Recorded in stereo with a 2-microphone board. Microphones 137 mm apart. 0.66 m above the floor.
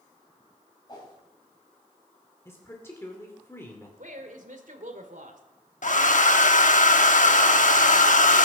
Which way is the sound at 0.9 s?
30° left (ahead or behind).